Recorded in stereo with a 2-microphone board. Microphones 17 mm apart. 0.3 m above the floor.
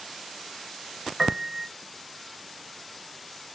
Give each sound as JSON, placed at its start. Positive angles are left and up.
{"t": 1.2, "sound": "a piano", "side_deg": -35, "distance_m": 0.6}